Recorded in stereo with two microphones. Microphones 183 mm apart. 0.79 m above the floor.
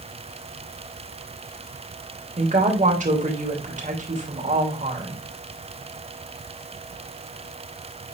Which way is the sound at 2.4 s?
45° right (ahead or behind).